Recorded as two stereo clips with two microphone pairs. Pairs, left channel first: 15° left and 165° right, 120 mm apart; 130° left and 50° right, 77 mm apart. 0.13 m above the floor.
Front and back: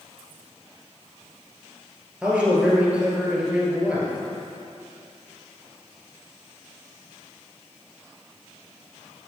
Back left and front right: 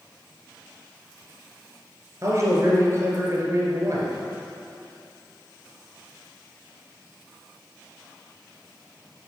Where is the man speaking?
90° right, 2.0 m.